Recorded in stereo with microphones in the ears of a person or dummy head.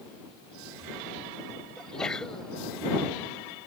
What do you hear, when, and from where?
1.8 s a sneeze: 5° left (ahead or behind)